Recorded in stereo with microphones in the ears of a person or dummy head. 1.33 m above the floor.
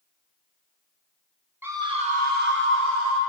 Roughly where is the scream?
Centre.